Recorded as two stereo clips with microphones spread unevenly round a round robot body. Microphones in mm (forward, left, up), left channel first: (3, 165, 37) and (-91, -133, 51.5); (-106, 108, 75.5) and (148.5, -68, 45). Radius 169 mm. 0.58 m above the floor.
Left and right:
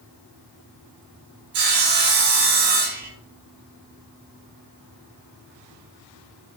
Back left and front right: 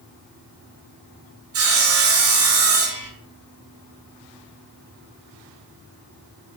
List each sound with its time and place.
1.5 s sawing: 80° right, 1.8 m